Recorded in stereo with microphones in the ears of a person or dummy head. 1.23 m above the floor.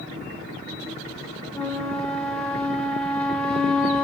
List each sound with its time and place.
1.5 s a flute: 5° left (ahead or behind), 1.3 m